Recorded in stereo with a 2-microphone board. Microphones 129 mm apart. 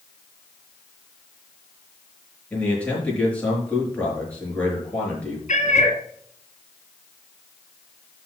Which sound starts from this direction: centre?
A man speaking, at 2.5 s.